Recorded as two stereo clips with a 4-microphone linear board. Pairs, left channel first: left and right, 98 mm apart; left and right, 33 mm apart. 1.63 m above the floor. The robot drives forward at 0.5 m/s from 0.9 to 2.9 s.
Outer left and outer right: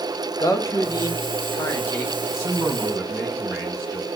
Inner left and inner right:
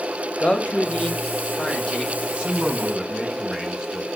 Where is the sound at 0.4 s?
35° left (ahead or behind), 0.9 m; by 2.1 s 25° left (ahead or behind), 1.4 m.